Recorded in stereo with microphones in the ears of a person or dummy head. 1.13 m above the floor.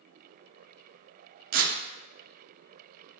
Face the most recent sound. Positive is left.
turn(degrees=-45)  # may be behind; listen again after turning